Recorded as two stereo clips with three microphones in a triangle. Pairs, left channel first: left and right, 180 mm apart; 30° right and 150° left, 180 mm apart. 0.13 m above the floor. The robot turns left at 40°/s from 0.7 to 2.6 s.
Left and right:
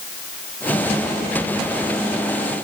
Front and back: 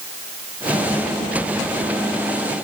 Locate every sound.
Only background noise.